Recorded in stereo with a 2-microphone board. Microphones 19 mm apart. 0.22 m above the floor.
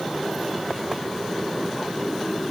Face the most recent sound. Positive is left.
No sound to turn to.